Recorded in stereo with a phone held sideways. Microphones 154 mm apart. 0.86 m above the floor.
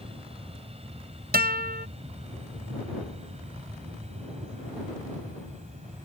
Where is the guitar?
80° right.